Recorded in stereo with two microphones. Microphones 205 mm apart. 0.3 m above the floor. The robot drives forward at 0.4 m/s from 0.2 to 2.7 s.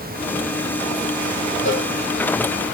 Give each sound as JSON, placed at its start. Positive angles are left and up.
{"t": 1.6, "sound": "a cowbell", "side_deg": 80, "distance_m": 8.5}